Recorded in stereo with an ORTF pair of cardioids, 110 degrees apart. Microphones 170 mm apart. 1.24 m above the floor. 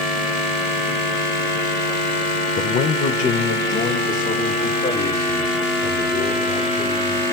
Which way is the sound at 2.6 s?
45° left.